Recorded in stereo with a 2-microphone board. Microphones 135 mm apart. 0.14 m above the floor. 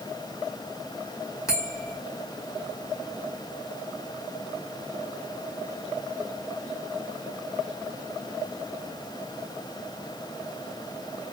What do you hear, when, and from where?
1.5 s a bell: 25° left (ahead or behind), 2 m